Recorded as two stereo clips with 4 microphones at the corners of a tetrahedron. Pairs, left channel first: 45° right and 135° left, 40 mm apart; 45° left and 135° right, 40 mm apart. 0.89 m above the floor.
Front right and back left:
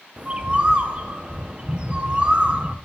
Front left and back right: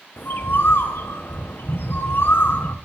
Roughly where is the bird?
Left.